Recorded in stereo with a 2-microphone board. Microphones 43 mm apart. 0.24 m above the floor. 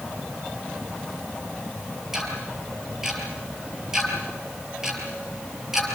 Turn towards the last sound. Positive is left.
turn(degrees=-10)  # may be behind; listen again after turning